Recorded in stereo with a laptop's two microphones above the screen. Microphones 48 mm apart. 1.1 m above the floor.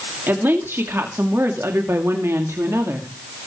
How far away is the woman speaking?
About 2.5 m.